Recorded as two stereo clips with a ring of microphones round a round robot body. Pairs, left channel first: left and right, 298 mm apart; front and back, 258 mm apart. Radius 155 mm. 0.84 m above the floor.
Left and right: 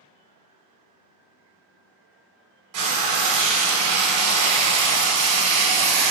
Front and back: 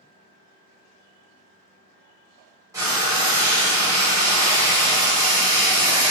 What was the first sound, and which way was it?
Frying, 100° right.